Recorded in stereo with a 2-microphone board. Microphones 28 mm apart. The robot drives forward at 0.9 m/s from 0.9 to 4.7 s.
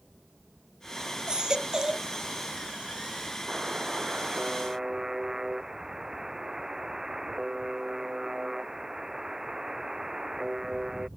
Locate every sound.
1.3 s a baby crying: 25° right (ahead or behind); by 2.1 s 20° right (ahead or behind)
3.5 s a buzzer: 25° right (ahead or behind); by 11.1 s 15° right (ahead or behind)